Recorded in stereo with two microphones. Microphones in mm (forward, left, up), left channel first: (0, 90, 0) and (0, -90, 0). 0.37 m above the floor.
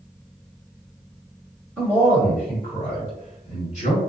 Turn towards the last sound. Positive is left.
turn(degrees=40)  # may be behind; listen again after turning